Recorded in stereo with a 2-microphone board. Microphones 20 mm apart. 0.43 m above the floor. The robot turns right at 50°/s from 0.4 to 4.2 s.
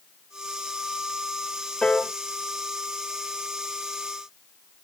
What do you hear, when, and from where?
1.8 s a piano: 60° left (ahead or behind), 0.5 m; by 2.1 s 50° left (ahead or behind), 0.5 m